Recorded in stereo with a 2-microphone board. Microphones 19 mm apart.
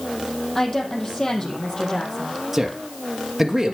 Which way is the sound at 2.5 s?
10° right (ahead or behind).